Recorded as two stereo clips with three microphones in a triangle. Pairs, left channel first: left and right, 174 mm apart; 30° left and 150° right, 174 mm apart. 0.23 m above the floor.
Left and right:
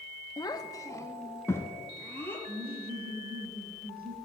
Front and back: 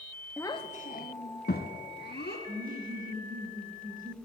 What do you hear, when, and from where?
0.4 s a child speaking: 95° left, 0.5 m; by 2.4 s 10° left, 2.5 m
2.5 s laughter: 115° right, 4 m